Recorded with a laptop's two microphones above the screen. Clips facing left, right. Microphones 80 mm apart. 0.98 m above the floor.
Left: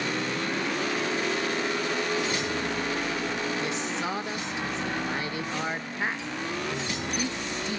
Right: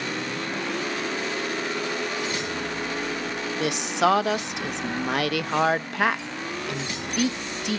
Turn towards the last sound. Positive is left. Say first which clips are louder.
# right 7 dB
turn(degrees=-70)  # may be behind; listen again after turning